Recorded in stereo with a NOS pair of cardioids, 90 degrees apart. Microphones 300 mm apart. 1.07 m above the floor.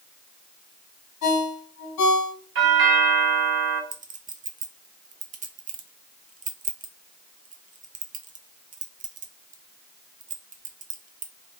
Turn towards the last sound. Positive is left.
turn(degrees=-25)